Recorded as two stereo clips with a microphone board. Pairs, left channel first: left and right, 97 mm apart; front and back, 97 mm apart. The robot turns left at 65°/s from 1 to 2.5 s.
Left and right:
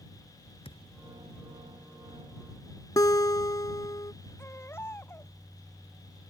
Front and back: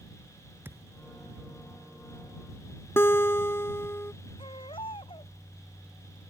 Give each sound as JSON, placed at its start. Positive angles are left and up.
{"t": 0.6, "sound": "a thud", "azimuth_deg": 110}
{"t": 3.0, "sound": "a guitar", "azimuth_deg": 55}
{"t": 4.4, "sound": "a baby crying", "azimuth_deg": 25}